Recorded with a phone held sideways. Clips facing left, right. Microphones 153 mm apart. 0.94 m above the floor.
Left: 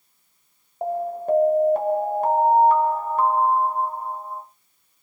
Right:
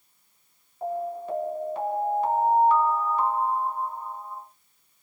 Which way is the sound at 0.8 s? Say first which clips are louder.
Left 5 dB; 50° left (ahead or behind).